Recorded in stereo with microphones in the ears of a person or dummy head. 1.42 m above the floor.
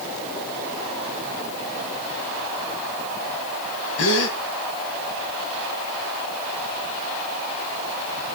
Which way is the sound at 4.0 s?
70° left (ahead or behind).